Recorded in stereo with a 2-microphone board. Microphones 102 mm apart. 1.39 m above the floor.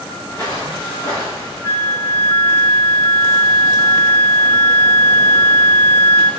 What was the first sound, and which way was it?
Footsteps, 30° left (ahead or behind).